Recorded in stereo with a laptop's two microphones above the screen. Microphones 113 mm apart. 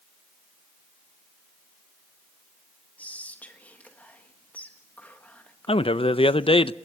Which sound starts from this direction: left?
A man speaking, at 5.7 s.